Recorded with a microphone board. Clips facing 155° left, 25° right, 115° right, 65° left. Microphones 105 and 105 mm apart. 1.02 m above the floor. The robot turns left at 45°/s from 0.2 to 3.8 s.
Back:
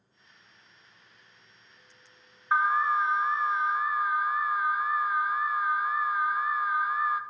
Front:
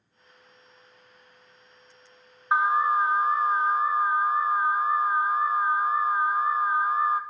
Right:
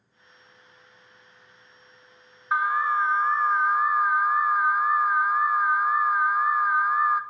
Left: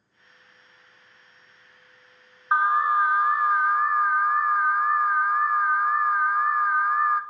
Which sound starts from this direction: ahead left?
An alarm, at 2.5 s.